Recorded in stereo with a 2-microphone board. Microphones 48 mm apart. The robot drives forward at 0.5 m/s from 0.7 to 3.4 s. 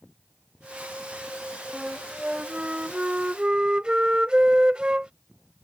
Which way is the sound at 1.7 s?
15° right (ahead or behind).